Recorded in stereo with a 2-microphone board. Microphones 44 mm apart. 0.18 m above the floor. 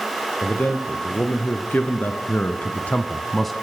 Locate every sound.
0.4 s a man speaking: 45° left (ahead or behind), 4.5 m; by 3.5 s centre (ahead or behind), 1.3 m